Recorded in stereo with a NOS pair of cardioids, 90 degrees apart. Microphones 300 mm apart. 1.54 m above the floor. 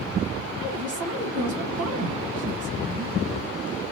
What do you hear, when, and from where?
0.6 s a woman speaking: 65° right, 1.6 m